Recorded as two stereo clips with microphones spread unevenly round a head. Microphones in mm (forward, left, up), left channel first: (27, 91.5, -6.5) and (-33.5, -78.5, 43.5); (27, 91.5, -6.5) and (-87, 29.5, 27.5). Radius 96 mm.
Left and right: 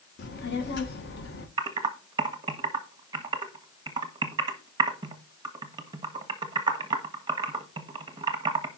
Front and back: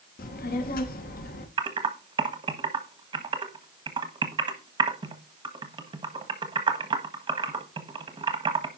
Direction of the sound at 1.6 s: 150° right.